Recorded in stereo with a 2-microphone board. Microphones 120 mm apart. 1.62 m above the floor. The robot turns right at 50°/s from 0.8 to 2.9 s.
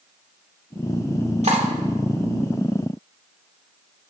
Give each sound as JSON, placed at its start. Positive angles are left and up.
{"t": 1.4, "sound": "cutlery clinking", "side_deg": -65, "distance_m": 2.5}